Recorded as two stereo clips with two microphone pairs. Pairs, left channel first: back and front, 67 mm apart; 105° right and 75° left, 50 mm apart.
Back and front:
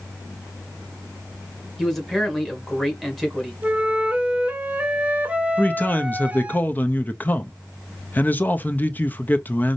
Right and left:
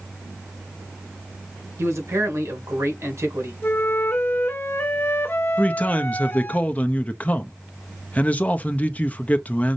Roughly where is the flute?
Right.